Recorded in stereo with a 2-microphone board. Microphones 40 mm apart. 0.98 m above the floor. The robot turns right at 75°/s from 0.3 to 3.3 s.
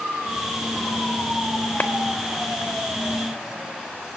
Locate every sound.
1.8 s a clap: 45° left (ahead or behind), 1.1 m; by 1.9 s 55° left (ahead or behind), 1.1 m